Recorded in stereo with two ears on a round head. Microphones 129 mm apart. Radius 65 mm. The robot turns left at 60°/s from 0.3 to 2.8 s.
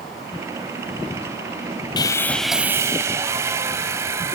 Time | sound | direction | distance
2.0 | sawing | 30° left | 0.9 m